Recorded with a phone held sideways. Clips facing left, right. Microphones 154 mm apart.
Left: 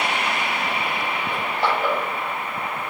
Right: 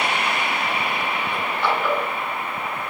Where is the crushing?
35° left (ahead or behind), 4.5 m.